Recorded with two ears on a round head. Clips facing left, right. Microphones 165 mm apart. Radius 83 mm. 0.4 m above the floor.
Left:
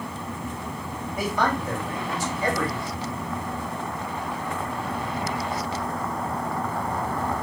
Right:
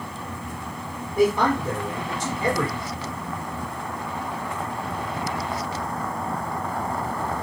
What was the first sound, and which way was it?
A man speaking, 25° right (ahead or behind).